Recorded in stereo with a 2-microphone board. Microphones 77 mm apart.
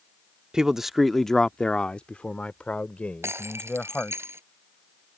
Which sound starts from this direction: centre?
A man speaking, at 0.5 s.